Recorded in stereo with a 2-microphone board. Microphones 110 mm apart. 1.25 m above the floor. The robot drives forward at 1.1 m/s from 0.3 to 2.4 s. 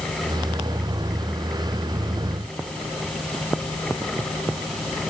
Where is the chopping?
No chopping in this recording.